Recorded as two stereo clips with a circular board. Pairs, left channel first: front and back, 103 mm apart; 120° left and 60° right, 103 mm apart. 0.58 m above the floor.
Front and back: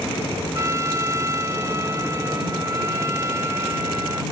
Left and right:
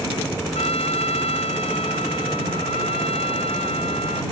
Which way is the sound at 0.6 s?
120° left.